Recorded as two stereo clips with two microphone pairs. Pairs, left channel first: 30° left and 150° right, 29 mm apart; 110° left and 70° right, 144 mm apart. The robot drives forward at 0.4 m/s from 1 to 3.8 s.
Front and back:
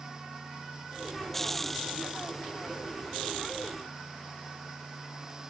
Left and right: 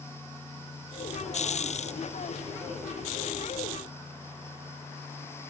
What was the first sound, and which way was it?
Only background noise.